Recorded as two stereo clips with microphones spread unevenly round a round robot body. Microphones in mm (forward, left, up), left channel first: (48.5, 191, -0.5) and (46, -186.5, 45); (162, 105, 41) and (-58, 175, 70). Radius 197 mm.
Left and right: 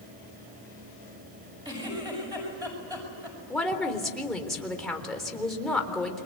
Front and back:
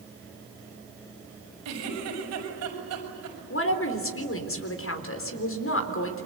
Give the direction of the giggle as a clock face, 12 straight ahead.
6 o'clock.